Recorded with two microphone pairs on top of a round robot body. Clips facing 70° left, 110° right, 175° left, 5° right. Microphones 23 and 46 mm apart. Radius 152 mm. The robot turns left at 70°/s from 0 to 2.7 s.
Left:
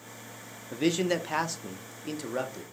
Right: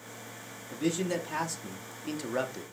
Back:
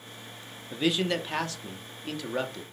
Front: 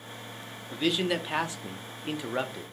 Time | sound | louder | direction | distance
0.7 | a man speaking | left 4 dB, back 1 dB | 80° left | 0.9 m